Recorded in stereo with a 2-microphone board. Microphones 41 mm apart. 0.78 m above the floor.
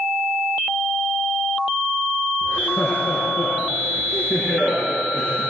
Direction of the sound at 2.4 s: 55° left (ahead or behind).